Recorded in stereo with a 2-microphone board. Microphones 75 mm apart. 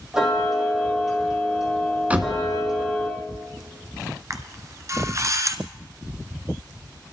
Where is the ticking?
5° right (ahead or behind), 4.5 m.